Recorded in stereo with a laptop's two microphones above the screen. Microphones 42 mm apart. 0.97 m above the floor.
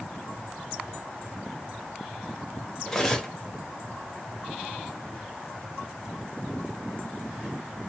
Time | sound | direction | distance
2.9 | cutlery clinking | 10° left (ahead or behind) | 0.6 m